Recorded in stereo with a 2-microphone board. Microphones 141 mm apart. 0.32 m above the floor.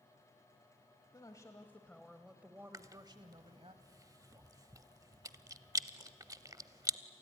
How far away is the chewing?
About 0.5 m.